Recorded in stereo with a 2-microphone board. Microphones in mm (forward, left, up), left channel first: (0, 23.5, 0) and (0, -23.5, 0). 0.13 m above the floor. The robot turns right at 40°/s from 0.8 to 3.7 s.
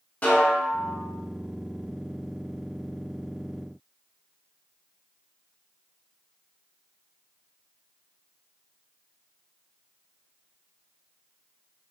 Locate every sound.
0.2 s a snare drum: 35° left (ahead or behind), 1.2 m